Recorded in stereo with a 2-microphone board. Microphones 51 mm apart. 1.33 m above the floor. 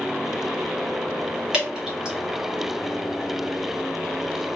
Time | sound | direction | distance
1.5 | dripping | 15° right (ahead or behind) | 1.5 m